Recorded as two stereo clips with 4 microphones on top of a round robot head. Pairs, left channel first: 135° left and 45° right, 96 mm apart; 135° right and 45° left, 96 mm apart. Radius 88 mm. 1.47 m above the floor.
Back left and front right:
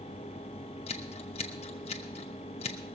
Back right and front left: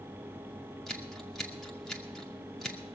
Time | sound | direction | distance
0.9 | scissors | 135° left | 0.7 m